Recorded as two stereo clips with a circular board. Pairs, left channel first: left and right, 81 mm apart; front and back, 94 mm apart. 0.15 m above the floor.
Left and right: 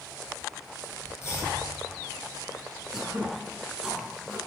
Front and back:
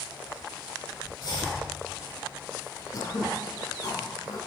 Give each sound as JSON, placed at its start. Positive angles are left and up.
{"t": 1.2, "sound": "chopping", "azimuth_deg": 35, "distance_m": 3.5}
{"t": 2.9, "sound": "throat clearing", "azimuth_deg": -10, "distance_m": 1.6}